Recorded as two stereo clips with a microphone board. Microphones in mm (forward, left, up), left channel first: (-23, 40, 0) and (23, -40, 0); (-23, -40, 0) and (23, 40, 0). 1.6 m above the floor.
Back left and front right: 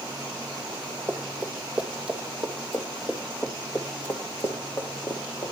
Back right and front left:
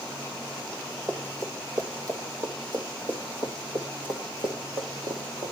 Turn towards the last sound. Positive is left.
turn(degrees=70)